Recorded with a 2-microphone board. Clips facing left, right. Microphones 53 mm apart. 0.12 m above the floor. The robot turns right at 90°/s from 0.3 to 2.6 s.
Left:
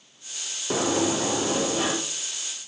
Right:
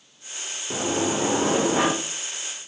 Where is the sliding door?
150° left, 3 m; by 1.9 s 100° right, 3 m.